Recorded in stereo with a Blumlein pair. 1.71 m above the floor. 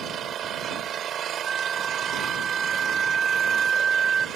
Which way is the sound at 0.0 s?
30° right.